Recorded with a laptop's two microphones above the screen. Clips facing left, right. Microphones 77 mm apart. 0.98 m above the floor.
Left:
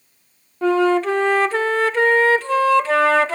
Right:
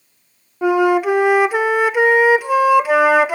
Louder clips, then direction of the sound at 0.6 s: Right 2 dB; 10° right (ahead or behind).